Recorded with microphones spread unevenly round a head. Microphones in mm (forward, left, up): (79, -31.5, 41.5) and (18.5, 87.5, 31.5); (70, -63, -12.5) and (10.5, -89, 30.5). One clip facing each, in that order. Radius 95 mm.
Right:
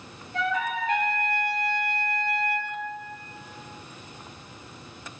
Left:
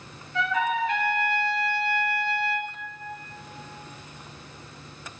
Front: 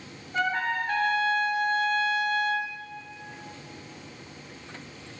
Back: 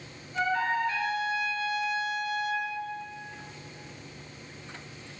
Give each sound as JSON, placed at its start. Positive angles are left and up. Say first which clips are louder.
{"t": 0.3, "sound": "a trumpet", "louder": "left 2 dB, even", "azimuth_deg": -15, "distance_m": 5.5}